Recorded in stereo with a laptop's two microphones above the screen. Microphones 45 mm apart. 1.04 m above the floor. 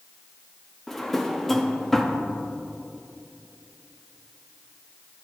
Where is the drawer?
5° left (ahead or behind), 0.5 m.